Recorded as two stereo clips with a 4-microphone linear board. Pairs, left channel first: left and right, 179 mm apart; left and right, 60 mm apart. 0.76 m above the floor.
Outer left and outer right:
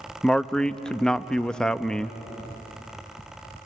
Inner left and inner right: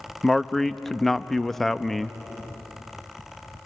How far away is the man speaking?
About 0.5 m.